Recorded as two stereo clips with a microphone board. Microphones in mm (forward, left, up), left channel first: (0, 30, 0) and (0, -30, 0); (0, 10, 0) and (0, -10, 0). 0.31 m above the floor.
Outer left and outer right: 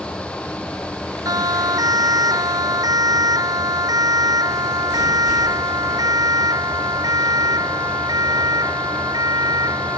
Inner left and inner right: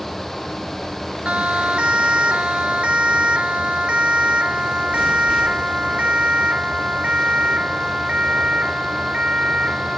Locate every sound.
1.2 s a siren: 85° right; by 10.0 s 90° right